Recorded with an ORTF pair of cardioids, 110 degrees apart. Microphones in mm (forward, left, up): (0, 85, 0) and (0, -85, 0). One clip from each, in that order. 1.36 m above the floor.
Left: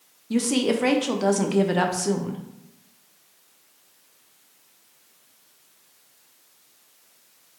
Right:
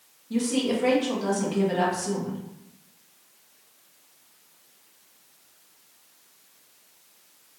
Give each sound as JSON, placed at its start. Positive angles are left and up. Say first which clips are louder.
{"t": 0.3, "sound": "a woman speaking", "louder": "left 3 dB", "azimuth_deg": 50, "distance_m": 0.8}